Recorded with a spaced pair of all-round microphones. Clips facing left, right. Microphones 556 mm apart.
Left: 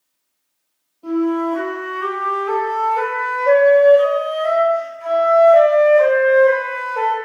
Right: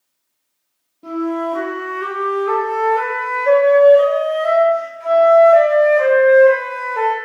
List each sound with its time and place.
1.0 s a flute: 45° right (ahead or behind), 0.6 m